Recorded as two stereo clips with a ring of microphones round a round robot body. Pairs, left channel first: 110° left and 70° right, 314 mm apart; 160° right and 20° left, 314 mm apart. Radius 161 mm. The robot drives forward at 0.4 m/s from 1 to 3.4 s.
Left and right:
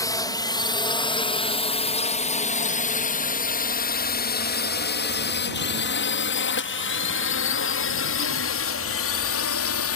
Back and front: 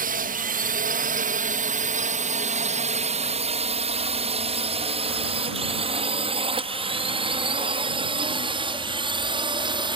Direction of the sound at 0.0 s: 45° left.